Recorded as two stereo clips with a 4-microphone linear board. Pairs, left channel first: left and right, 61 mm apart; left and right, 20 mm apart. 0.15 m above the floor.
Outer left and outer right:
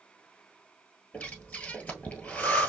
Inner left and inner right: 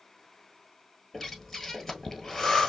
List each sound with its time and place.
1.1 s breathing: 20° left (ahead or behind), 1.1 m